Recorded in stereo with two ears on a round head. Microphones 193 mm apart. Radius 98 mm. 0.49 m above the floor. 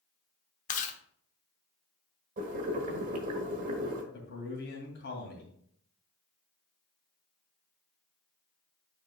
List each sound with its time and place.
0.7 s chewing: 35° left (ahead or behind), 0.7 m
2.4 s boiling: 35° right (ahead or behind), 1.3 m
4.1 s a man speaking: 50° left (ahead or behind), 2.5 m